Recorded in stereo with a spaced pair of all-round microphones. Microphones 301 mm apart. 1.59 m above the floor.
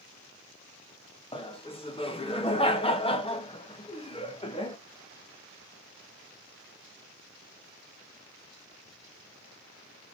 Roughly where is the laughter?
Centre.